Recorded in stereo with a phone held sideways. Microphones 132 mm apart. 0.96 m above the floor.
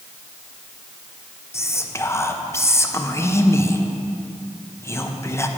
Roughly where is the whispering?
Centre.